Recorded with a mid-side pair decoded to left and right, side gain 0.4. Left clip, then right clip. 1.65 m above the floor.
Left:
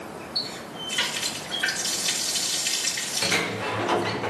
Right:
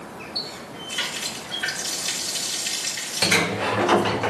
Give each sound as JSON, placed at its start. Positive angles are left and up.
{"t": 0.3, "sound": "a running tap", "azimuth_deg": -5, "distance_m": 2.5}
{"t": 3.2, "sound": "a sliding door", "azimuth_deg": -50, "distance_m": 0.5}